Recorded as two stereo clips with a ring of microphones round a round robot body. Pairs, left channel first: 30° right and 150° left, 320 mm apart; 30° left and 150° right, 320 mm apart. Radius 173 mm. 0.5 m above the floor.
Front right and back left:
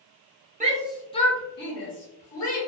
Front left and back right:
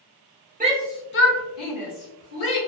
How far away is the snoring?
I don't hear snoring.